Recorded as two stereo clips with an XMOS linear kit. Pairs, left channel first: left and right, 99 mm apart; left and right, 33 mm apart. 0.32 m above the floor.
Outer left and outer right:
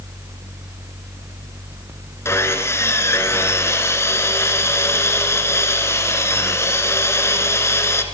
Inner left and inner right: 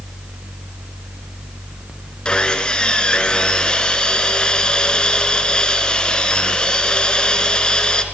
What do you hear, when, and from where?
2.2 s sawing: 25° left (ahead or behind), 2.5 m